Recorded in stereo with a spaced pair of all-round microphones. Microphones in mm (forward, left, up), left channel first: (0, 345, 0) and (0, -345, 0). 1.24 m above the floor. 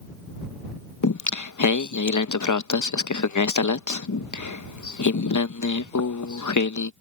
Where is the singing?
30° left (ahead or behind).